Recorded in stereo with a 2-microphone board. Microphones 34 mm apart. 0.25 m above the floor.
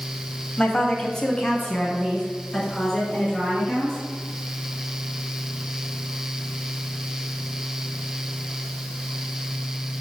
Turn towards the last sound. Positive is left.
turn(degrees=15)  # may be behind; listen again after turning